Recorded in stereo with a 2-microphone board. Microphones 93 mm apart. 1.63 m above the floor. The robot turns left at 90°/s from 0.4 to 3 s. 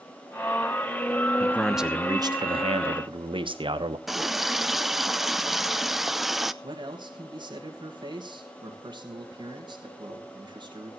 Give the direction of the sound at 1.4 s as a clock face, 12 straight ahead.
11 o'clock.